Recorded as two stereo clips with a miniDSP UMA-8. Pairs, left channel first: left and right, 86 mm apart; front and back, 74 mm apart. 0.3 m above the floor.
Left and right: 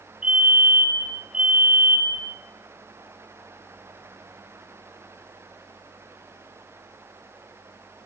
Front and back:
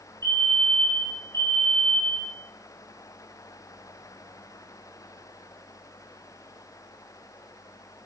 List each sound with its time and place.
0.2 s a fire alarm: 165° right, 4.5 m